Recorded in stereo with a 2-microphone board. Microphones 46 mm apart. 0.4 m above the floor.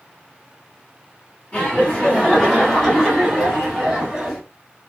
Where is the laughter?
25° left (ahead or behind), 1.5 m; by 4.4 s 5° right (ahead or behind), 2 m.